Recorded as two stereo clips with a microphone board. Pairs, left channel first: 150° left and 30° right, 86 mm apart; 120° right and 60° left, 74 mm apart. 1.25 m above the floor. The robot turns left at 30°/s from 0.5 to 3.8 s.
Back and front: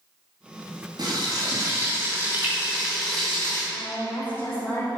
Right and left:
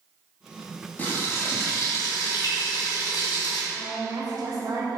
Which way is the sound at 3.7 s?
85° left.